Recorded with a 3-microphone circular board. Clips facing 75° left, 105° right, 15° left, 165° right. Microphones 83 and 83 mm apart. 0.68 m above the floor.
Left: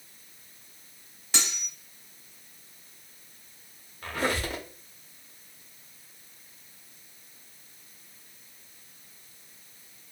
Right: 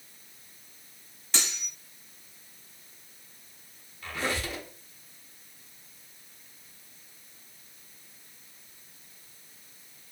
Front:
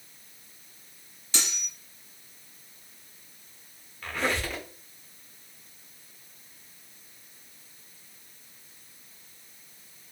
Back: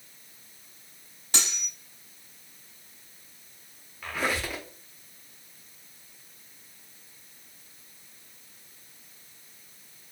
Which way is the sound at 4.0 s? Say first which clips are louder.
Left 3 dB, even; 115° left.